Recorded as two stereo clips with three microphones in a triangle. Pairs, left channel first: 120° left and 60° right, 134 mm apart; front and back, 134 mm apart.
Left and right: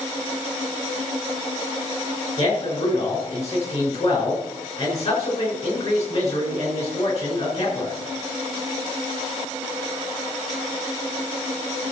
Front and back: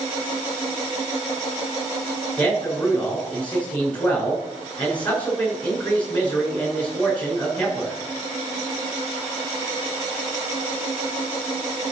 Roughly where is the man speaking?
Left.